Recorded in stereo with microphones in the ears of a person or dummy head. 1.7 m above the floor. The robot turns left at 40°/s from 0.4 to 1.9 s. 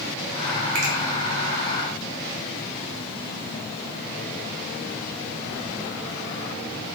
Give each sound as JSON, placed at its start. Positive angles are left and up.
{"t": 0.8, "sound": "a finger snap", "side_deg": -60, "distance_m": 1.9}